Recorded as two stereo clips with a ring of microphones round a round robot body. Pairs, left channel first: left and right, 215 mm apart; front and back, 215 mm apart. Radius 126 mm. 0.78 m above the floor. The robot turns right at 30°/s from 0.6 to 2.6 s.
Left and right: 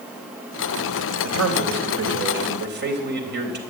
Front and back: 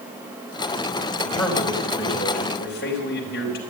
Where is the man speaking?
90° right, 4 m; by 3.6 s 50° right, 4 m.